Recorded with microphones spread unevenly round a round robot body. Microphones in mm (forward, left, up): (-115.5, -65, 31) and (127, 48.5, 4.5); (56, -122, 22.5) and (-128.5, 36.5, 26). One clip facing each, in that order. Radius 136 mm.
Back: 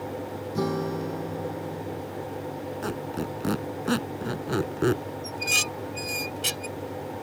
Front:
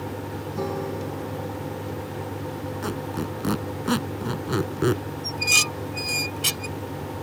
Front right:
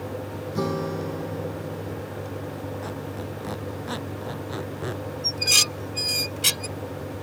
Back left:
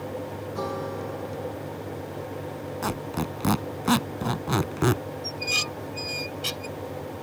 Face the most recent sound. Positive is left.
turn(degrees=-55)